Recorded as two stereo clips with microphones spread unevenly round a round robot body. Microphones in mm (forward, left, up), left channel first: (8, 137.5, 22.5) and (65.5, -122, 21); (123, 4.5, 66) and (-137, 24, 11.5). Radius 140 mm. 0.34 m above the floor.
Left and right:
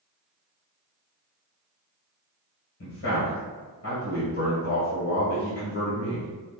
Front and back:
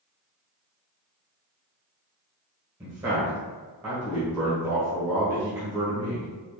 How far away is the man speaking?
About 2.0 m.